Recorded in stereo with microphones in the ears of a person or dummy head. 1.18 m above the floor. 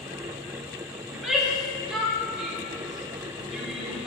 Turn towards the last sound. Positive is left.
turn(degrees=-5)  # may be behind; listen again after turning